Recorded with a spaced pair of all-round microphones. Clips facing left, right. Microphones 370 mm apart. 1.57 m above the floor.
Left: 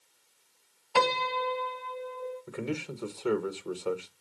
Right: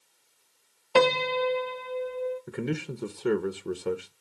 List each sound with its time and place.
0.9 s a piano: 70° right (ahead or behind), 0.7 m
2.5 s a man speaking: 25° right (ahead or behind), 1.0 m